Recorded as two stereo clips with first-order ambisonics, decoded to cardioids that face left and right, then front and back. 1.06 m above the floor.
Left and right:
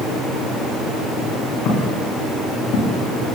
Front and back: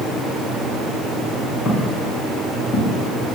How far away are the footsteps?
About 9 m.